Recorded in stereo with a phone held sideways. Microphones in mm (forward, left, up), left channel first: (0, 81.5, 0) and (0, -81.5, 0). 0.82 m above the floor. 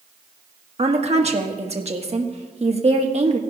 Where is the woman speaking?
40° right (ahead or behind), 1.3 m.